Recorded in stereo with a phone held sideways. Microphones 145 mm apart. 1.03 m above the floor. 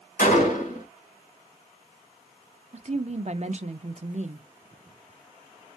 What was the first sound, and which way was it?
A gunshot, 60° left (ahead or behind).